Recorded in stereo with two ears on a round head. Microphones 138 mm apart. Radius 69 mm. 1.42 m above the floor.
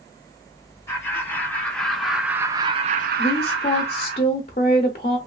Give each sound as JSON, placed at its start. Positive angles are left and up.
{"t": 0.9, "sound": "laughter", "side_deg": 15, "distance_m": 1.7}
{"t": 3.2, "sound": "a woman speaking", "side_deg": 40, "distance_m": 0.6}